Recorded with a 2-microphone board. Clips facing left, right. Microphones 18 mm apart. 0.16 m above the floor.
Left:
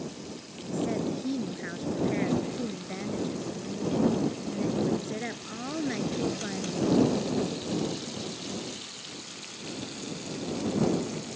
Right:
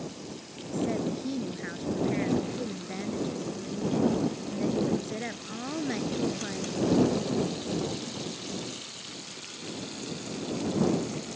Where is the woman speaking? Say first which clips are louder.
Even; centre (ahead or behind).